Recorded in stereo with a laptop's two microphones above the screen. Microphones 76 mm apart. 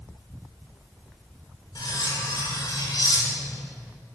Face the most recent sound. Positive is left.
turn(degrees=70)  # may be behind; listen again after turning